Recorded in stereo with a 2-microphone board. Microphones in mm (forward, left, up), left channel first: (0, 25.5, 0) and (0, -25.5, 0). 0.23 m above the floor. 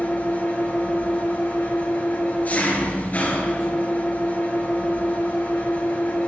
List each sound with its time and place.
0.0 s an engine running: 30° left (ahead or behind), 3.5 m